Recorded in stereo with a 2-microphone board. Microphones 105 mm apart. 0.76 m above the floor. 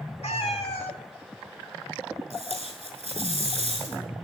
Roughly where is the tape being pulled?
Left.